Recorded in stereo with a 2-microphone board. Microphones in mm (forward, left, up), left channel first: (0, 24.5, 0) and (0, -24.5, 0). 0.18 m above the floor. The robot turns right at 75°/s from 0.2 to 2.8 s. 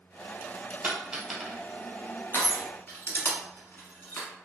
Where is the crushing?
50° left (ahead or behind), 0.9 m; by 4.3 s 40° left (ahead or behind), 0.9 m.